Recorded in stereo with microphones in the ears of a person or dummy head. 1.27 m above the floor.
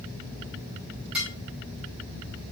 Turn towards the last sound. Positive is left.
turn(degrees=-5)  # may be behind; listen again after turning